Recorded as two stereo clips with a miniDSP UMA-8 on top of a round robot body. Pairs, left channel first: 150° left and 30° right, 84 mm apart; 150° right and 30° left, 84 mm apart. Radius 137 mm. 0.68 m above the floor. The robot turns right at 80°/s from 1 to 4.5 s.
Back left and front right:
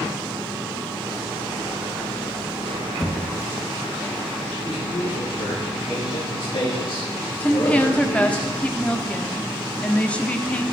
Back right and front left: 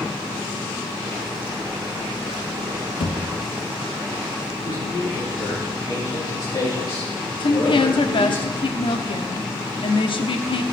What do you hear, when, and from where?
3.0 s a thud: 135° right, 2.5 m; by 3.2 s 120° right, 2.5 m
4.6 s a man speaking: 175° left, 6.5 m
7.4 s a woman speaking: 135° right, 1.6 m